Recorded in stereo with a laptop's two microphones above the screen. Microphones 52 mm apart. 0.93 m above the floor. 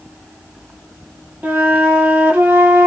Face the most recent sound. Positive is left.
turn(degrees=-30)  # may be behind; listen again after turning